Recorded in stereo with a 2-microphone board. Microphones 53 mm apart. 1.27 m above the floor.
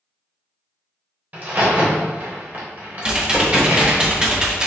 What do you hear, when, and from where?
1.3 s a crack: 35° right (ahead or behind), 1.1 m
3.0 s typing on a keyboard: 20° right (ahead or behind), 0.6 m